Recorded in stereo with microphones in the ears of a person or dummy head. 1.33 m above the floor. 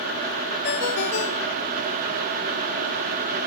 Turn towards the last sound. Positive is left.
turn(degrees=55)  # may be behind; listen again after turning